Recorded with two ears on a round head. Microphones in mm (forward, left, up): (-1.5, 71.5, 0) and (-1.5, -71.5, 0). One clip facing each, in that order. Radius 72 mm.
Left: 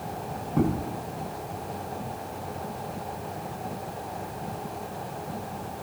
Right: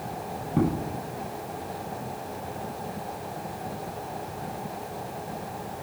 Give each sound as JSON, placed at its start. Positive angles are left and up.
{"t": 0.5, "sound": "footsteps", "side_deg": -10, "distance_m": 8.5}